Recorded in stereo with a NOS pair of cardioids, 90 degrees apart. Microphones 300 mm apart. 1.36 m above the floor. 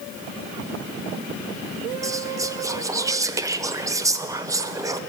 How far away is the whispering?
About 0.6 m.